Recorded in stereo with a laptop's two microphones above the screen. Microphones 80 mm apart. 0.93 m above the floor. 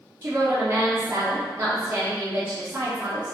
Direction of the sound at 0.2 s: 25° right (ahead or behind).